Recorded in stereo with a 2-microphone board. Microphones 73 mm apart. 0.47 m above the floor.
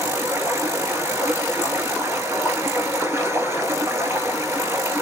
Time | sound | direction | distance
0.0 | running water | 40° right (ahead or behind) | 1.4 m